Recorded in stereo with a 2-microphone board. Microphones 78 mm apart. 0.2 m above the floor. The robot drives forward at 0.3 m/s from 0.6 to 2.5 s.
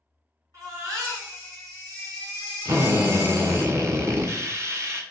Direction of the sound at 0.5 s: 50° right (ahead or behind).